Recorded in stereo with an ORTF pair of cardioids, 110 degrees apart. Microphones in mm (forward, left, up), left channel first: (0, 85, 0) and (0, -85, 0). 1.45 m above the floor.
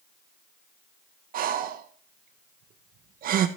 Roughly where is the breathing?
Ahead right.